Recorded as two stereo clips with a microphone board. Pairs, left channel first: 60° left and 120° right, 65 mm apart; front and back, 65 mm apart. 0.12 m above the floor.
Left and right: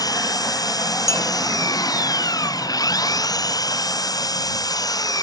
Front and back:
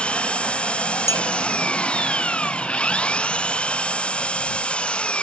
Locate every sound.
0.0 s an engine running: 70° left
1.1 s a clink: 30° left